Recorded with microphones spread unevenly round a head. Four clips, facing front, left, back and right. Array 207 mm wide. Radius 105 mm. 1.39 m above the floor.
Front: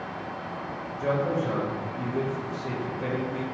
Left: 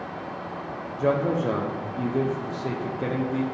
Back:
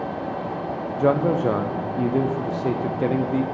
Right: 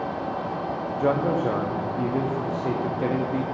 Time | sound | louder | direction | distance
1.0 | a man speaking | even, back 7 dB | straight behind | 0.6 m